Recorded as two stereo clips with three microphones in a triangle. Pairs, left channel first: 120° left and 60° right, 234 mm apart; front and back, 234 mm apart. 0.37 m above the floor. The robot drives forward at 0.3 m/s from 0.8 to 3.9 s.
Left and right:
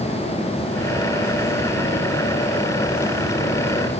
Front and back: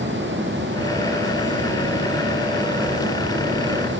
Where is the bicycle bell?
No bicycle bell in this recording.